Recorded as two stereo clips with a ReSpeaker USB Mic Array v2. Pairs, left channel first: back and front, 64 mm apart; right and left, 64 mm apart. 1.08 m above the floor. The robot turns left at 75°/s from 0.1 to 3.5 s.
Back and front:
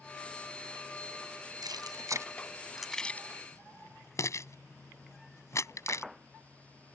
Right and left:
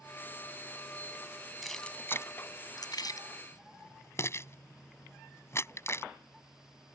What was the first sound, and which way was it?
Keys jangling, straight ahead.